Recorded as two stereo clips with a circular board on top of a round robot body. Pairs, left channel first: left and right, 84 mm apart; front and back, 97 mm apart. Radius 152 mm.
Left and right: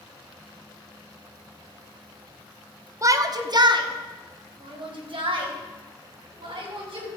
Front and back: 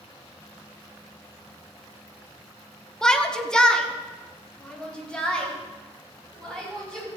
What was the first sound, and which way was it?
A shout, 80° right.